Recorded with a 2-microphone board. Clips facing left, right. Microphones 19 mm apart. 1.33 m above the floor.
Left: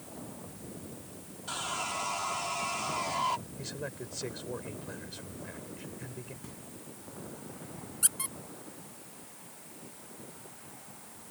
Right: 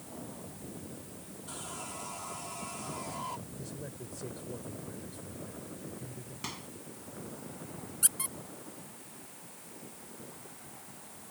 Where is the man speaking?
55° left (ahead or behind).